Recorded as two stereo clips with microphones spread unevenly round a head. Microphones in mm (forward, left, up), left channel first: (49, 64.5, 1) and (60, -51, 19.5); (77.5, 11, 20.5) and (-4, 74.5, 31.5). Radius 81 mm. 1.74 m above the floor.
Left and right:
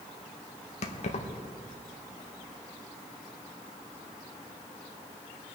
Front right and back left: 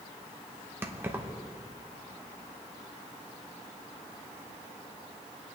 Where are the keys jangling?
85° left, 1.2 m.